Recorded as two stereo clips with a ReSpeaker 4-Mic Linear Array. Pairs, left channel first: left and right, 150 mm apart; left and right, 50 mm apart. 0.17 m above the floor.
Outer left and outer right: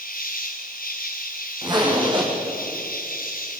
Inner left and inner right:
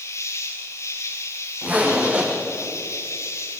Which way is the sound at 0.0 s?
75° left (ahead or behind).